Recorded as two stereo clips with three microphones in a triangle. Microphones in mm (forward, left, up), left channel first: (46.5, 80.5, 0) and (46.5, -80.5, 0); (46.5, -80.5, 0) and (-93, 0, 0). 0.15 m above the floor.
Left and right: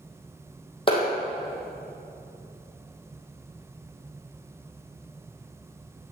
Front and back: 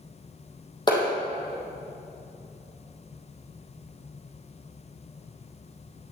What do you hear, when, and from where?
0.9 s a clap: 30° left, 4 m